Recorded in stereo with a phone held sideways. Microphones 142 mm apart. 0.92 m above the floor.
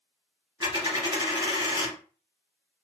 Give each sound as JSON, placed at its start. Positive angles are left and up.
{"t": 0.6, "sound": "a dropped coin", "side_deg": -25, "distance_m": 1.6}